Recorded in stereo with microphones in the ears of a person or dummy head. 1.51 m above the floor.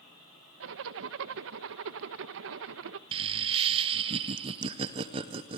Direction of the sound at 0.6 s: 60° right (ahead or behind).